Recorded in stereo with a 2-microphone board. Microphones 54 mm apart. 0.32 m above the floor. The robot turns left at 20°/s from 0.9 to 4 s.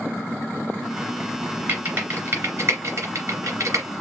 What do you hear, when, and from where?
1.7 s typing on a keyboard: 30° right (ahead or behind), 2.5 m; by 3.9 s 70° right (ahead or behind), 2.5 m